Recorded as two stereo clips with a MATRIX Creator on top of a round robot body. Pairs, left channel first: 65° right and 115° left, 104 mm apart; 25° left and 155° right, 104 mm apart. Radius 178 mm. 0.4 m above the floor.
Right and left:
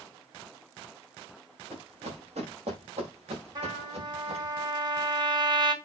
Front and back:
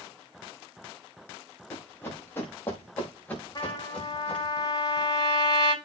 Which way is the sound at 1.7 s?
90° left.